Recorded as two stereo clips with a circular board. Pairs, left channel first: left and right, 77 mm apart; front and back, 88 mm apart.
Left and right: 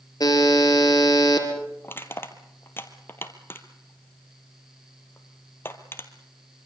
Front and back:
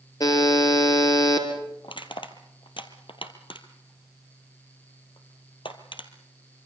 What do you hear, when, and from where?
0.2 s a buzzer: 50° left, 4 m
1.8 s crushing: 25° left, 1.9 m